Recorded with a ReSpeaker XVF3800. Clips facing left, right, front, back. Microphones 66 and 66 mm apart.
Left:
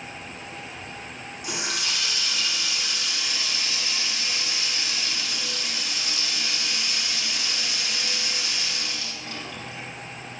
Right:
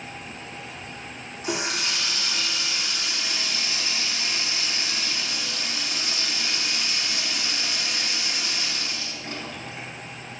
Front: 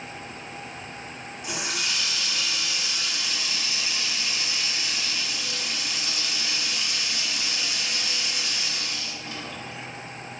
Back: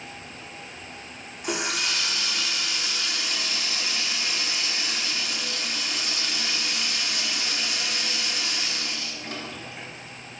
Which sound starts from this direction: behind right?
A running tap, at 1.4 s.